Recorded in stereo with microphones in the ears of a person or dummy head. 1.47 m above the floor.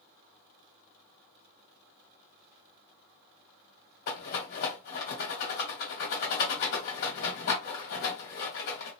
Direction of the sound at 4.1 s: 45° left (ahead or behind).